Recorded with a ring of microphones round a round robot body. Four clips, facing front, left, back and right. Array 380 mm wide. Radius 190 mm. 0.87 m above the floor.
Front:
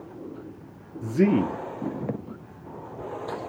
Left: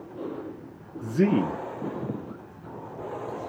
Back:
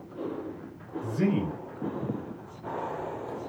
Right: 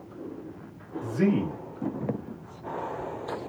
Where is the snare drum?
I don't hear a snare drum.